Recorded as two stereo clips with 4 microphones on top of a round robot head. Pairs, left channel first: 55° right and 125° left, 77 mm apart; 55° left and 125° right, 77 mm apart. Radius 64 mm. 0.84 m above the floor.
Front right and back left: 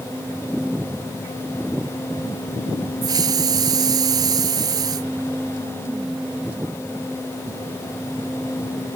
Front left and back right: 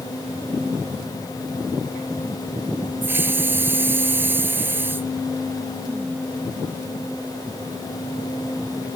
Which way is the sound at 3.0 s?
170° left.